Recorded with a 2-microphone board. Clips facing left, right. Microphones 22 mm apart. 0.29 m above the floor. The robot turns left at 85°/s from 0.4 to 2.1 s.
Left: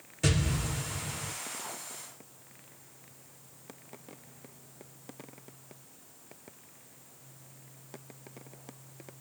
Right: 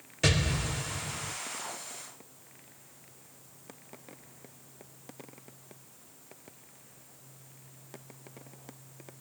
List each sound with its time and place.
0.2 s an explosion: 135° right, 1.1 m; by 1.3 s 145° left, 1.1 m